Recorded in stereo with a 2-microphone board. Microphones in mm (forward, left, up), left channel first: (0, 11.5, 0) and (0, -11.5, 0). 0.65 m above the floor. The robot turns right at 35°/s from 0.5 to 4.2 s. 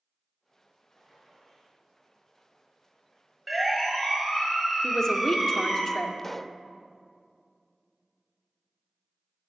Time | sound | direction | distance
0.9 | a gunshot | 30° left (ahead or behind) | 7 m
3.5 | a siren | 15° right (ahead or behind) | 4.5 m
4.8 | a man speaking | 25° left (ahead or behind) | 1.6 m
6.2 | a pop | 10° left (ahead or behind) | 0.5 m